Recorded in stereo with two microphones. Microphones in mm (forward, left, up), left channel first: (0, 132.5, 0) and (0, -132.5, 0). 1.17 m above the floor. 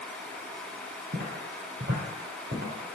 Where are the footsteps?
40° right (ahead or behind), 1.6 m; by 3.0 s 35° right (ahead or behind), 1.5 m.